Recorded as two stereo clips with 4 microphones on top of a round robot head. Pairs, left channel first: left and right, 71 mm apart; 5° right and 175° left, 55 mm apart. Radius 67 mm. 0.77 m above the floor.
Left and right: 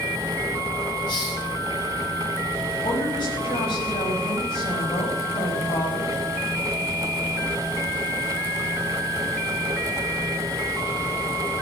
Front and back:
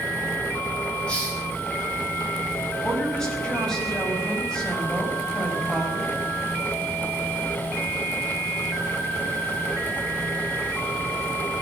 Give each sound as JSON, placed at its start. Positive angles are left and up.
{"t": 1.1, "sound": "a hiss", "azimuth_deg": 65, "distance_m": 6.5}
{"t": 2.8, "sound": "a woman speaking", "azimuth_deg": 70, "distance_m": 6.5}